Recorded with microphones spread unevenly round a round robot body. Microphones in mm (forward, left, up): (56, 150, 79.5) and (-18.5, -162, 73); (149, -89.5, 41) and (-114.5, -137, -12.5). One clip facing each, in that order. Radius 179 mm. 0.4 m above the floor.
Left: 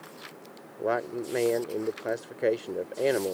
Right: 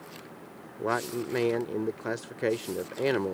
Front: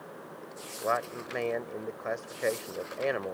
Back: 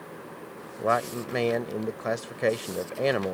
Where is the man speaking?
170° right.